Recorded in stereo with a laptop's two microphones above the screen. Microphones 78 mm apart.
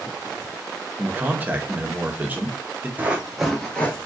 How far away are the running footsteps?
About 0.9 m.